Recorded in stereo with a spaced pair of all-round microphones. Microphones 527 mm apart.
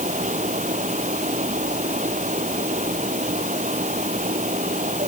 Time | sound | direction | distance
0.0 | a fan | 15° right (ahead or behind) | ?